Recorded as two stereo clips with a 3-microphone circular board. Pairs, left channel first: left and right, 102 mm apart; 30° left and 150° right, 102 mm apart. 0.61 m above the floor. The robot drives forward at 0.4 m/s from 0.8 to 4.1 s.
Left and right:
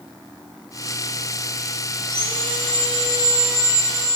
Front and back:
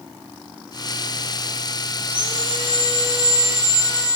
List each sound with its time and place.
2.0 s sawing: 170° left, 5.5 m; by 4.2 s 175° left, 6.5 m